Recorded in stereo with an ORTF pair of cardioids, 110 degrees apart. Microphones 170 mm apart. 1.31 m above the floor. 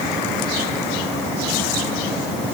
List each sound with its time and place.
Only background noise.